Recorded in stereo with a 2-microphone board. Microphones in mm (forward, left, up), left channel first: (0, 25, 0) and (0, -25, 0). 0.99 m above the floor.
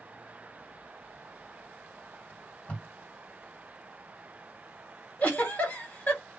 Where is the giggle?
35° left (ahead or behind), 1.5 m.